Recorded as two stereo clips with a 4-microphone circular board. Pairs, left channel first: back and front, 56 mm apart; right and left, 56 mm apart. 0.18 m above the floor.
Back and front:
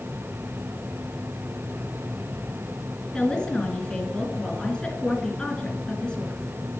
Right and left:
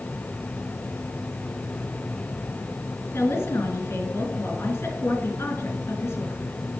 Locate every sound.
3.1 s a woman speaking: 115° right, 2.5 m